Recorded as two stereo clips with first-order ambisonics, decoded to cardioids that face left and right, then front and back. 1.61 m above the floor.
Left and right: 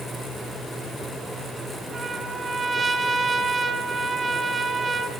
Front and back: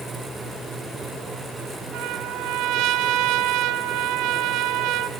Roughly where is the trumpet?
Behind.